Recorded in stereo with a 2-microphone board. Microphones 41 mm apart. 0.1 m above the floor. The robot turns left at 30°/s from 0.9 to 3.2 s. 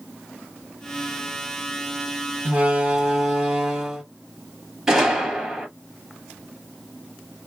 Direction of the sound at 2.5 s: 30° right (ahead or behind).